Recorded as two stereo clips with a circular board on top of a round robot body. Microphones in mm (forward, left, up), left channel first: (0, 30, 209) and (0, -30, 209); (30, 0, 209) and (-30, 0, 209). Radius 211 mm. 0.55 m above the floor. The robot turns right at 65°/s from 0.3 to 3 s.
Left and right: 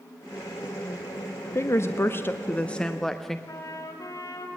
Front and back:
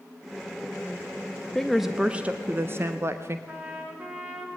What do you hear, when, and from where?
1.6 s a woman speaking: 80° left, 1.4 m; by 3.4 s 170° left, 1.4 m
3.5 s a trumpet: 110° left, 3.5 m